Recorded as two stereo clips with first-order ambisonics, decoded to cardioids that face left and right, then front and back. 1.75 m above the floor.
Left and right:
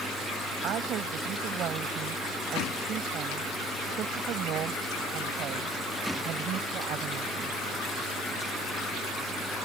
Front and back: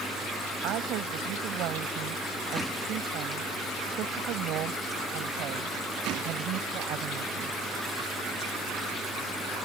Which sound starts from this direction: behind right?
A woman speaking, at 0.6 s.